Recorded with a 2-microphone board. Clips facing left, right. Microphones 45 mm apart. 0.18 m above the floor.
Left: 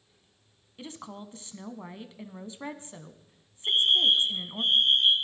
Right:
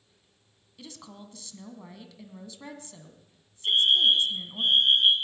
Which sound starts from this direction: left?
A woman speaking, at 0.8 s.